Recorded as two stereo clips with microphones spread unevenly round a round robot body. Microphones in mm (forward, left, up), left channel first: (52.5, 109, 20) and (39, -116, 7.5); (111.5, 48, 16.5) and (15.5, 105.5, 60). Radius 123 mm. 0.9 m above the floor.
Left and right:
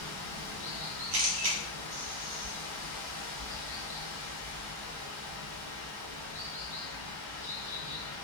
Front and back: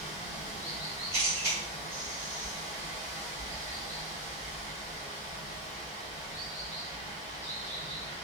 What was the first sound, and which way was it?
Running water, 60° right.